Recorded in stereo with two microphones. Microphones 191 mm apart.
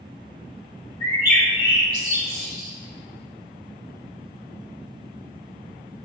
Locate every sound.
1.0 s a bird: 45° right (ahead or behind), 3.5 m